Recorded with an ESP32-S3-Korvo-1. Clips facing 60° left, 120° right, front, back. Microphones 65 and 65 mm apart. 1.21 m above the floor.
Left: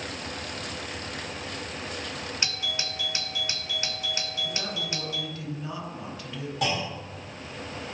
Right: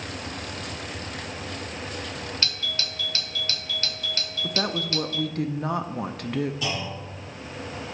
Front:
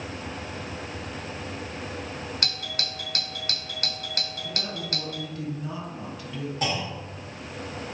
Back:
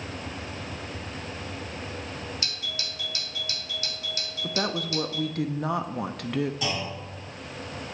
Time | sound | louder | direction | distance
2.4 | a doorbell | right 1 dB, front 3 dB | 10° right | 0.7 m
4.4 | a woman speaking | right 10 dB, back 9 dB | 155° right | 0.6 m
6.6 | a clunk | left 2 dB, front 2 dB | 40° left | 3 m